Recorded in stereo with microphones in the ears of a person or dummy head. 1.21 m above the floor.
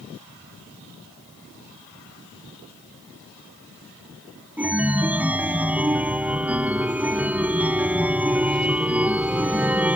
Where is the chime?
5° right (ahead or behind).